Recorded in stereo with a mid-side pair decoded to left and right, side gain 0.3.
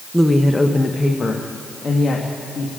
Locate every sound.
0.1 s a woman speaking: straight ahead, 1.0 m; by 2.7 s 60° left, 2.5 m